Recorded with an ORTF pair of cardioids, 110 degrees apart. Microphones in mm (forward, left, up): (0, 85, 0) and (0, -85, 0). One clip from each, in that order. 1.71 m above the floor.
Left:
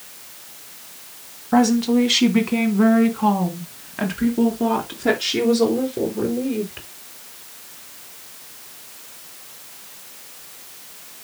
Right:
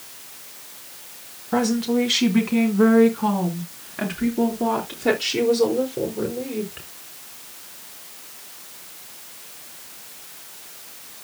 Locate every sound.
1.5 s a woman speaking: 20° left, 2 m; by 6.9 s 15° left, 5.5 m